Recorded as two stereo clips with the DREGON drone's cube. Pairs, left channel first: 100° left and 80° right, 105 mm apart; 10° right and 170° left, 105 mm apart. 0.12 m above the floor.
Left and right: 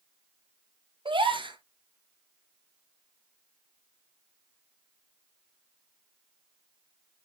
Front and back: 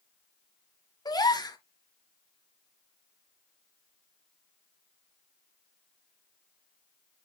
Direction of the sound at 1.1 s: 60° right.